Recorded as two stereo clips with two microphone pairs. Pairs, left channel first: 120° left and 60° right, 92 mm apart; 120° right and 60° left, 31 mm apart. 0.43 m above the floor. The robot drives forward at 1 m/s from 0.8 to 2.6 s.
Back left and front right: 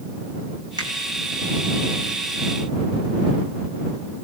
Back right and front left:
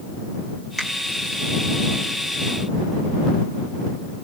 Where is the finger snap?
30° right, 3.5 m.